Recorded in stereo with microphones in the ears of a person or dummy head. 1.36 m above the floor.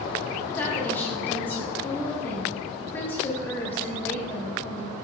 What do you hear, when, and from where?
0.6 s a woman speaking: 15° left (ahead or behind), 1.6 m